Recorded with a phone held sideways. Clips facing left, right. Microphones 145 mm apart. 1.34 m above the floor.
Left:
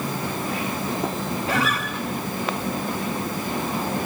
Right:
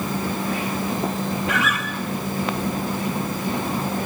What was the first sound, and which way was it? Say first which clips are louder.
A guitar: even; 35° left (ahead or behind).